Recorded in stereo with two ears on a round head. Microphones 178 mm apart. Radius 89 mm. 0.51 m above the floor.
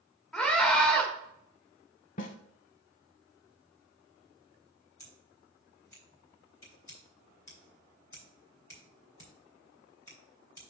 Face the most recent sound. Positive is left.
turn(degrees=15)  # may be behind; listen again after turning